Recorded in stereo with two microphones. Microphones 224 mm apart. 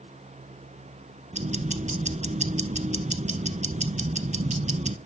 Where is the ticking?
30° right (ahead or behind), 0.6 m.